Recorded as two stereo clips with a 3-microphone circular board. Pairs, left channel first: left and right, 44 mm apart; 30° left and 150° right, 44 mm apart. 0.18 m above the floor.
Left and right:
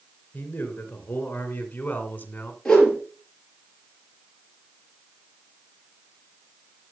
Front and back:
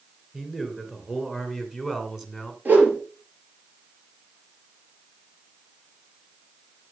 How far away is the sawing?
No sawing in this recording.